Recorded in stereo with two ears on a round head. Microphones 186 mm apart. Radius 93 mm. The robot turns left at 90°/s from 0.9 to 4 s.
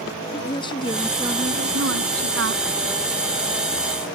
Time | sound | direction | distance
0.3 | a woman speaking | 25° left | ?